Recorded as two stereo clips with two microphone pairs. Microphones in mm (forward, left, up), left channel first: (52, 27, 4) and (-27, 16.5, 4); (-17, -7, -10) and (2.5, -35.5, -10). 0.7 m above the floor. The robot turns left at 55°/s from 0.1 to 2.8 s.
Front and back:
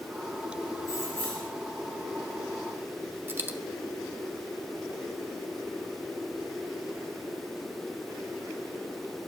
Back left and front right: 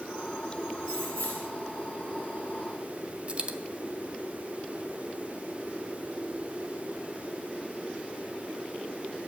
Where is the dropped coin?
110° right, 0.7 m.